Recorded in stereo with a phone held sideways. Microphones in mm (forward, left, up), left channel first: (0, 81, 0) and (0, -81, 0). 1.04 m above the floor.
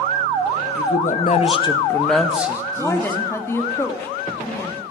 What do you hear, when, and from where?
0.8 s a man speaking: 65° left (ahead or behind), 1.2 m; by 3.2 s 30° right (ahead or behind), 1.5 m
2.8 s a woman speaking: 15° left (ahead or behind), 1.6 m